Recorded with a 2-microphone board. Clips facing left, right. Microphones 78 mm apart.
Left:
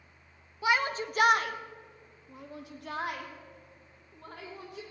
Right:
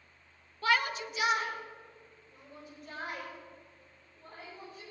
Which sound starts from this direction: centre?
A shout, at 0.6 s.